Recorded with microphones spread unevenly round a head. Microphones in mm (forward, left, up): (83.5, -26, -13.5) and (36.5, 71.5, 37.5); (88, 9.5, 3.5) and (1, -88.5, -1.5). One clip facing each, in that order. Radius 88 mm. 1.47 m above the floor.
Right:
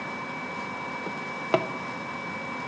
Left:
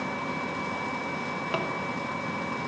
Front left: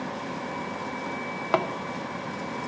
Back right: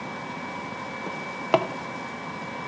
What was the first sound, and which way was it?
A drawer, 85° right.